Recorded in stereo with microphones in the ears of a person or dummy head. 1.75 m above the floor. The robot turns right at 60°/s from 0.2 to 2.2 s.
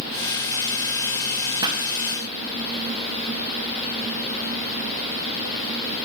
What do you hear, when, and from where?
1.6 s a pop: 20° right (ahead or behind), 1.2 m; by 1.8 s 30° right (ahead or behind), 1.2 m